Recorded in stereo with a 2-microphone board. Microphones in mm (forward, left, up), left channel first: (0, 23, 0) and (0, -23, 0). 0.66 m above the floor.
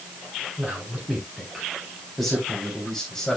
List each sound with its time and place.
0.6 s a man speaking: 5° right (ahead or behind), 4 m; by 3.4 s 10° left (ahead or behind), 3 m